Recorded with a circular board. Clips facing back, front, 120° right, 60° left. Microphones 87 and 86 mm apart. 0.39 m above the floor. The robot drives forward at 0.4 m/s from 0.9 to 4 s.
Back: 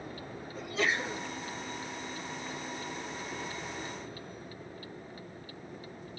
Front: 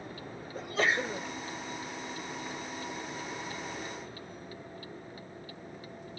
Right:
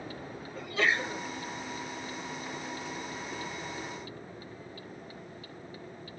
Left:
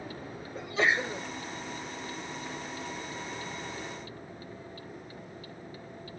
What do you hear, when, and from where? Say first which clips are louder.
0.6 s a sneeze: front 2 dB, left 2 dB; straight ahead, 2 m